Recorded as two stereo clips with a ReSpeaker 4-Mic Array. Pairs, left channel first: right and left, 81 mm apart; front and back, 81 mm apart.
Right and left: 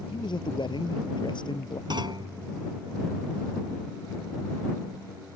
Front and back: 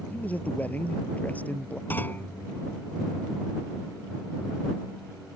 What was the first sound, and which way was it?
A man speaking, 70° right.